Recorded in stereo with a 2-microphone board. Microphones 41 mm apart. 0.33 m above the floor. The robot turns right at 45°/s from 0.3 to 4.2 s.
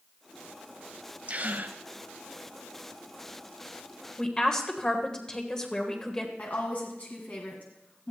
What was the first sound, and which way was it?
A gasp, 45° right (ahead or behind).